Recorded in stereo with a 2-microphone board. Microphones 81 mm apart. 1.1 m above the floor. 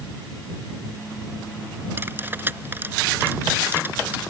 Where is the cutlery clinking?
25° right (ahead or behind).